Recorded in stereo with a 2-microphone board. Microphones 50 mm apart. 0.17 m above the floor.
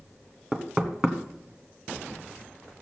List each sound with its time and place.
0.5 s knocking: 10° right (ahead or behind), 1.2 m